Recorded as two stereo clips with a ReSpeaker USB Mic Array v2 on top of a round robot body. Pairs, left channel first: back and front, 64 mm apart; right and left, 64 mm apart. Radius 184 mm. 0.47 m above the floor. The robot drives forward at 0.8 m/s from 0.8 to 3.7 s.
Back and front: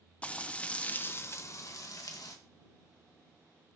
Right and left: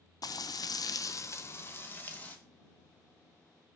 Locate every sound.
0.2 s frying: 110° right, 0.8 m; by 2.4 s 155° right, 1.7 m